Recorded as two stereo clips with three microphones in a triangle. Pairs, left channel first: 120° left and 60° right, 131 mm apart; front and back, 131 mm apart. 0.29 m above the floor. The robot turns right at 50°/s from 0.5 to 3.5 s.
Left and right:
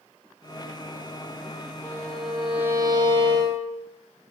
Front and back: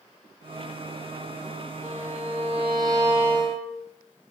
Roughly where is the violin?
Behind.